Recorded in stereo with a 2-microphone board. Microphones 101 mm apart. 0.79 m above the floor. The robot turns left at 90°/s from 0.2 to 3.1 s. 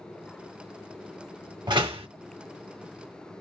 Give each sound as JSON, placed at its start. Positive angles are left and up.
{"t": 1.7, "sound": "a door slam", "azimuth_deg": -50, "distance_m": 1.0}